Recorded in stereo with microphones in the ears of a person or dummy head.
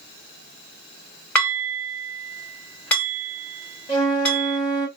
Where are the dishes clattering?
15° left (ahead or behind), 2.5 m.